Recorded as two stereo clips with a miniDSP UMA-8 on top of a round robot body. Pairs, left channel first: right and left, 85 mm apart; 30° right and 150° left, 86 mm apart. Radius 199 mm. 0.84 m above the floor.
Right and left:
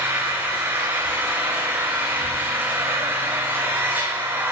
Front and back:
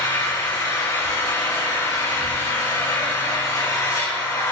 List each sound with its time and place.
0.0 s an engine running: 20° left, 6 m